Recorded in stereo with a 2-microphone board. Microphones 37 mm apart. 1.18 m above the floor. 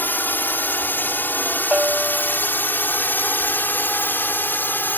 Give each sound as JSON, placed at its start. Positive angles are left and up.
{"t": 0.0, "sound": "a drone", "side_deg": 65}
{"t": 1.7, "sound": "a bell", "side_deg": -45}